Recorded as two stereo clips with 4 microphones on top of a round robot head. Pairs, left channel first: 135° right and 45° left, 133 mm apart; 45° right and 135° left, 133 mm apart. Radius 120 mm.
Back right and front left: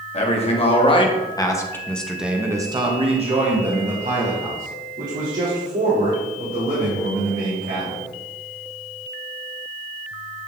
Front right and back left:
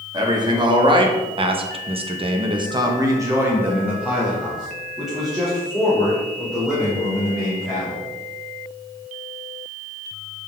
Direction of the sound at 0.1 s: 170° right.